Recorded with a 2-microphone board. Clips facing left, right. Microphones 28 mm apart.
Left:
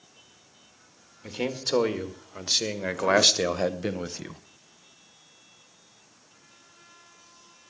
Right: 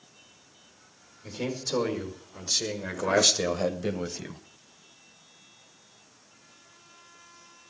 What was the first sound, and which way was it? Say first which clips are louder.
A man speaking: left 3 dB; 55° left (ahead or behind).